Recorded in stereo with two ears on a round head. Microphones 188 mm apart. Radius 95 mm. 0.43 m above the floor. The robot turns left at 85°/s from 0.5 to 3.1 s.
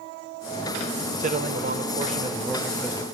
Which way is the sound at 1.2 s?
55° right.